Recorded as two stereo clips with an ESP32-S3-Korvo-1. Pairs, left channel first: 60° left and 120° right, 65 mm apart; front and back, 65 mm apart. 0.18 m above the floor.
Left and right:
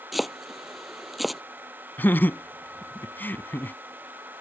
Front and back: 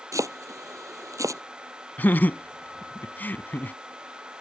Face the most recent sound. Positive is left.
turn(degrees=35)